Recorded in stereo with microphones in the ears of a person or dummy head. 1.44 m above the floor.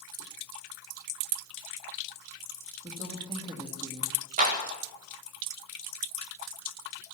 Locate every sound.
2.8 s a woman speaking: 25° right (ahead or behind), 1.9 m
4.4 s a clap: 40° right (ahead or behind), 2 m